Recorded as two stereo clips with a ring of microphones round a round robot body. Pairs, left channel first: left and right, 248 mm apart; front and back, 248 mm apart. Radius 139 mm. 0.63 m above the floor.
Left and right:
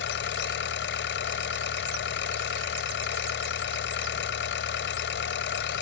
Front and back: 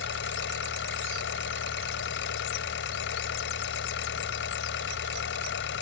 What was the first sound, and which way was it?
An engine running, 50° left.